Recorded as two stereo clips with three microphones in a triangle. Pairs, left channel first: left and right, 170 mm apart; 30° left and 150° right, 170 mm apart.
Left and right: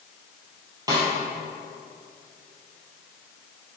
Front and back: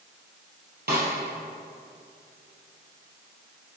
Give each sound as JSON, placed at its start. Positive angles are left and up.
{"t": 0.9, "sound": "a snare drum", "azimuth_deg": -155, "distance_m": 3.0}